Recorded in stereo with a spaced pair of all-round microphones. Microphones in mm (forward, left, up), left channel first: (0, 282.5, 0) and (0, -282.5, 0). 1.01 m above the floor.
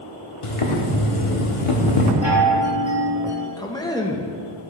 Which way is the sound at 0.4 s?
70° left (ahead or behind).